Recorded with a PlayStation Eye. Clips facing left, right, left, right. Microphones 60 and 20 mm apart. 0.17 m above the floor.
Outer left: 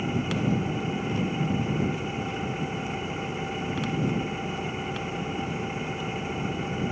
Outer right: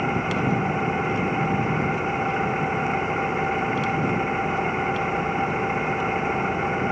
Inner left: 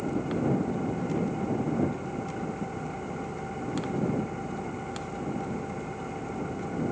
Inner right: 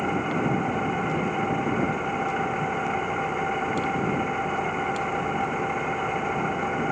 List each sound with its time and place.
0.0 s an engine running: 50° right (ahead or behind)